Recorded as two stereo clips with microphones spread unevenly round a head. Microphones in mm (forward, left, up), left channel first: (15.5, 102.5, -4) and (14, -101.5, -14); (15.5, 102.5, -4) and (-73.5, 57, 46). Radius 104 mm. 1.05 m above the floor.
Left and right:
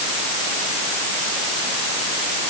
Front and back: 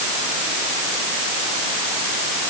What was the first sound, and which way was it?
Only background noise.